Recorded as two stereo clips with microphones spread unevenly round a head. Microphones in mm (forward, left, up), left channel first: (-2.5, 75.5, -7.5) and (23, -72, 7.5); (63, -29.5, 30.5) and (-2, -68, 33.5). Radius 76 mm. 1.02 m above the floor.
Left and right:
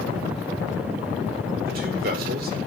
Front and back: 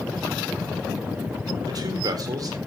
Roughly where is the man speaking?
Behind right.